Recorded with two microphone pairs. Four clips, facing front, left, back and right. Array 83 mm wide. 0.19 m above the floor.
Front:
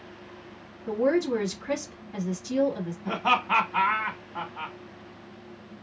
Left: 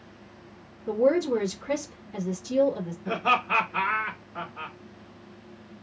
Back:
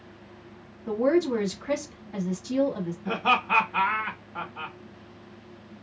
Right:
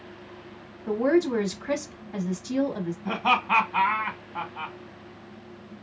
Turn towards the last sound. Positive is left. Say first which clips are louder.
# right 1 dB, even
turn(degrees=-75)